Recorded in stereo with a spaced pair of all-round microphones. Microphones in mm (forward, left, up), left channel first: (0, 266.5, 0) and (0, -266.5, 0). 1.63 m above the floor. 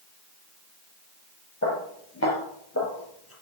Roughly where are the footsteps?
Left.